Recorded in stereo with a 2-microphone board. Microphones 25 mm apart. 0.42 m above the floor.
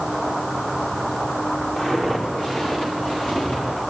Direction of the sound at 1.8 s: 30° left (ahead or behind).